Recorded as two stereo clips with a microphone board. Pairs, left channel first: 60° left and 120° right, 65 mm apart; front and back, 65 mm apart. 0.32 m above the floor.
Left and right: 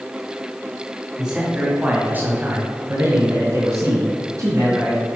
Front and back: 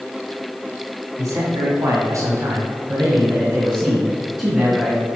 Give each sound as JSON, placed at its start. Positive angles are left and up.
{"t": 1.2, "sound": "a man speaking", "azimuth_deg": 160, "distance_m": 2.0}